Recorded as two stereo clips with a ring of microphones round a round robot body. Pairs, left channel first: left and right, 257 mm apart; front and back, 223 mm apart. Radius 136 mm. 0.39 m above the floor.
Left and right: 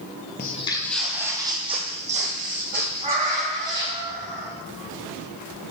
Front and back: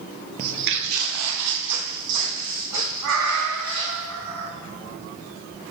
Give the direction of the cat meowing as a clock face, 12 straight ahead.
5 o'clock.